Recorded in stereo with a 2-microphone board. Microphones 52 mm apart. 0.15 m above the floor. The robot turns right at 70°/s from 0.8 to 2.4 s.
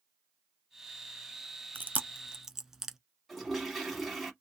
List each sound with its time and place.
1.8 s chewing: 45° right (ahead or behind), 0.5 m; by 3.0 s 10° right (ahead or behind), 0.5 m
3.3 s a toilet flushing: centre (ahead or behind), 1.2 m